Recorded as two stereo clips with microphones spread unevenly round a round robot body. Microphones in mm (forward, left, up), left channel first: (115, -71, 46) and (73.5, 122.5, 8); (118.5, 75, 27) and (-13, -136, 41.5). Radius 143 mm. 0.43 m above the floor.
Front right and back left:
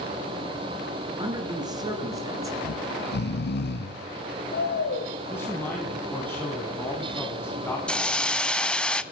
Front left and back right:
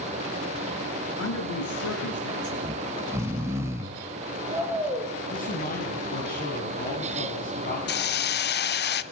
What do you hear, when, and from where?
1.2 s a man speaking: 35° left, 7.5 m; by 2.5 s 30° left, 7 m
2.6 s snoring: 40° right, 1.7 m
5.3 s a man speaking: 5° left, 4 m
7.9 s a hiss: 5° left, 0.9 m